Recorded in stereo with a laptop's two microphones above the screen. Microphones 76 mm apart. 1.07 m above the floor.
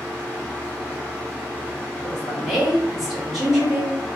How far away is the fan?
About 1.1 m.